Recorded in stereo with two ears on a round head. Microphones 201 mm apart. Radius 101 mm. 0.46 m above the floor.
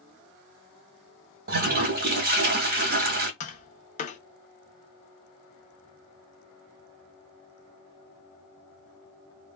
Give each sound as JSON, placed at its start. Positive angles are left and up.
{"t": 1.5, "sound": "a toilet flushing", "side_deg": -45, "distance_m": 0.9}
{"t": 3.4, "sound": "tapping", "side_deg": 35, "distance_m": 0.7}